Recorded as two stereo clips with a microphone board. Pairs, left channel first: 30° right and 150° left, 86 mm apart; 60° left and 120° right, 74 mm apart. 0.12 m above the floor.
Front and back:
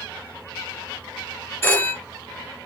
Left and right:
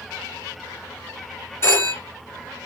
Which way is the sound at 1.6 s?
25° left.